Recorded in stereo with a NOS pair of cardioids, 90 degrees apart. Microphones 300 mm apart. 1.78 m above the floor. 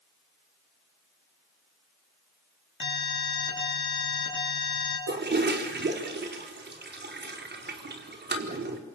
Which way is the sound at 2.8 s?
40° left.